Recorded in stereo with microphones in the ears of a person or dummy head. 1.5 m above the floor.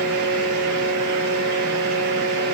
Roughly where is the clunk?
I don't hear a clunk.